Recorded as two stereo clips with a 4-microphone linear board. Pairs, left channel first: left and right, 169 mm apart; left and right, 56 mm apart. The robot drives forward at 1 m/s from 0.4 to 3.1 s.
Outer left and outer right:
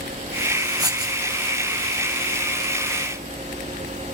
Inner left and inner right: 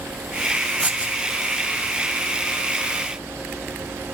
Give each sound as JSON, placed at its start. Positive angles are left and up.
{"t": 0.8, "sound": "writing", "side_deg": -20, "distance_m": 1.4}